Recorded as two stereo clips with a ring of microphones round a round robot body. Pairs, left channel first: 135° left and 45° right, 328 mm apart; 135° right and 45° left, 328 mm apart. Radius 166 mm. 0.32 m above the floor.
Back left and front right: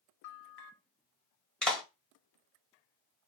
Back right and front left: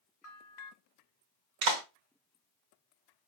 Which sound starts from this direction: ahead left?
A clap, at 1.6 s.